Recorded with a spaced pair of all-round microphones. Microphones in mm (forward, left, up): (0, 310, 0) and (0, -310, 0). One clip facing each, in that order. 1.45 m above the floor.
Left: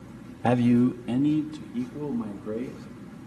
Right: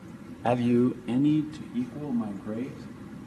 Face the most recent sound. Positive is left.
turn(degrees=-20)  # may be behind; listen again after turning